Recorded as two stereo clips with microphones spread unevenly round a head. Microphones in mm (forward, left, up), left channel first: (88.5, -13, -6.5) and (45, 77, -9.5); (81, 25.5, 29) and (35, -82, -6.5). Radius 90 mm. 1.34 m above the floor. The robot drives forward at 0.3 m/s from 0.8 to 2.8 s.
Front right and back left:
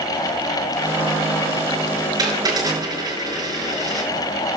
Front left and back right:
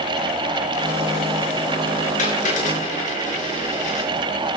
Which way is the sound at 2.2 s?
65° left.